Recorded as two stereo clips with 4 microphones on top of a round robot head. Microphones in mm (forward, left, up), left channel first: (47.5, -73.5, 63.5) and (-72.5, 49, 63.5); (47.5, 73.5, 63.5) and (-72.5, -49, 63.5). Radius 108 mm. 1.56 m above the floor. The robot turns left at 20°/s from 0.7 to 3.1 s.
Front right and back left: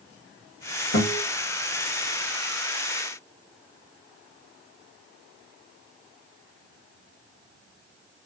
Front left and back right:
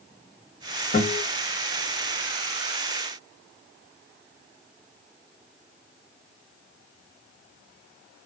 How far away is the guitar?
About 2.5 m.